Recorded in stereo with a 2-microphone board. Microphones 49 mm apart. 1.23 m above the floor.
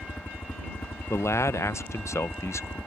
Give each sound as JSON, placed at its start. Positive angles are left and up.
{"t": 0.0, "sound": "a helicopter", "side_deg": 60}
{"t": 1.1, "sound": "a man speaking", "side_deg": 80}